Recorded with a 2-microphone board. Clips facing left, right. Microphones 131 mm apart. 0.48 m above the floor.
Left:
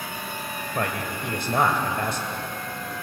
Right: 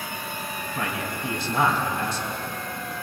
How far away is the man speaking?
About 2.5 m.